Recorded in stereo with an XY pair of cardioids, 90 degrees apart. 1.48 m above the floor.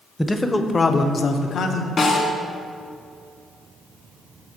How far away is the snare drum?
About 2 m.